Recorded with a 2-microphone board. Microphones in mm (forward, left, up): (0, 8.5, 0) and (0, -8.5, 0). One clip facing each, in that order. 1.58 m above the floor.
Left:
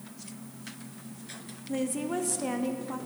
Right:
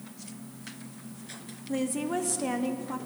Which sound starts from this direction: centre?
A woman speaking, at 1.7 s.